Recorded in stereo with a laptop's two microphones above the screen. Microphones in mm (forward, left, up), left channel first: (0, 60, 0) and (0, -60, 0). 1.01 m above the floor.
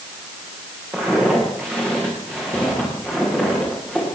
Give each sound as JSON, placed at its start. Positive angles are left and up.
{"t": 0.9, "sound": "footsteps", "side_deg": -25, "distance_m": 9.0}